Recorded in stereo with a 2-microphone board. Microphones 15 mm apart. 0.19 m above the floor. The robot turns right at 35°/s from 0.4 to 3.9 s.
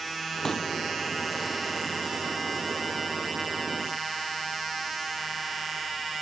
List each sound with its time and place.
0.4 s a pop: 35° left (ahead or behind); by 0.7 s 25° left (ahead or behind)